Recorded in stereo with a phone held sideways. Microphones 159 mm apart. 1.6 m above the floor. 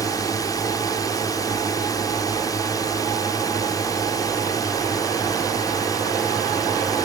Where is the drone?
25° left (ahead or behind).